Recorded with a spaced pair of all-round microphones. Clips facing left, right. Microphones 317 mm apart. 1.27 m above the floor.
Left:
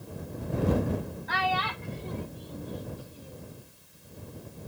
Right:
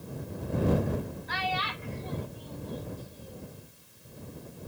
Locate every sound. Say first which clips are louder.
1.3 s a child speaking: left 3 dB; 65° left (ahead or behind); by 3.5 s 5° left (ahead or behind)